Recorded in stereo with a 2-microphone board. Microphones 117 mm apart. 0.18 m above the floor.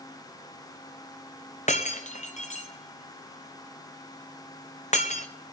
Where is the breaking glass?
80° left, 1.1 m.